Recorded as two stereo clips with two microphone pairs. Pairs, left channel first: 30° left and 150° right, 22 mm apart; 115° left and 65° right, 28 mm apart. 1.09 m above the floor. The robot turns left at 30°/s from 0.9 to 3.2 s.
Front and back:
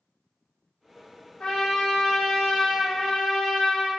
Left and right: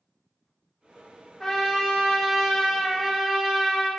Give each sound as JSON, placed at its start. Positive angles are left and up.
{"t": 1.4, "sound": "a trumpet", "azimuth_deg": 50, "distance_m": 0.8}